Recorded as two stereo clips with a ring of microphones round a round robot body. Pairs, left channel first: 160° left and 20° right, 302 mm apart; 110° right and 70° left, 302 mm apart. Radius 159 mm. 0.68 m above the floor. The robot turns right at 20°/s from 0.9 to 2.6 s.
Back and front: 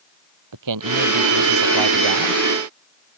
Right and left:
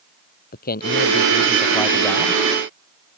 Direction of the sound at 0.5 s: 50° right.